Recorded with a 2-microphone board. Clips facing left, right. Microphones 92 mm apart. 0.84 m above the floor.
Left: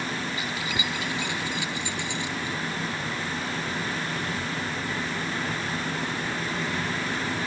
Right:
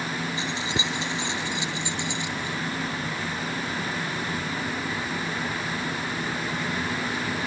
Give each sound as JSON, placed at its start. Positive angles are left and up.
{"t": 0.4, "sound": "keys jangling", "side_deg": -30}